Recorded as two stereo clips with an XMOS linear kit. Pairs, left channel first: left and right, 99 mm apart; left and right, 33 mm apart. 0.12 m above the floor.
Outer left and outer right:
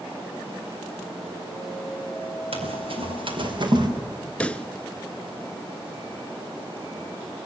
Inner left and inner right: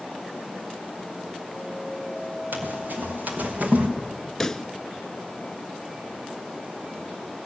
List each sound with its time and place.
2.5 s running footsteps: 70° right (ahead or behind), 4 m; by 3.9 s 45° right (ahead or behind), 3 m
4.4 s a pop: 10° left (ahead or behind), 0.6 m